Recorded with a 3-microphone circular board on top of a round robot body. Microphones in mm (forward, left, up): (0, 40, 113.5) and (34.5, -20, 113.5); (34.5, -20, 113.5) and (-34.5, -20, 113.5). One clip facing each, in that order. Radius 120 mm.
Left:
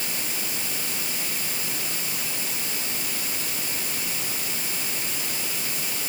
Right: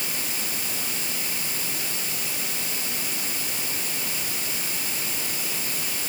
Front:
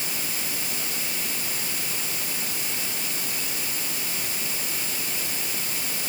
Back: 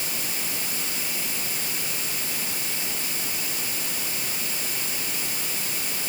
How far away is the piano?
I don't hear a piano.